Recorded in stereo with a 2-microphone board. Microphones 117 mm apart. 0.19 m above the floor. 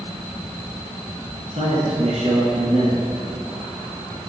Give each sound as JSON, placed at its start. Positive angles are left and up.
{"t": 1.5, "sound": "a man speaking", "side_deg": -60, "distance_m": 2.0}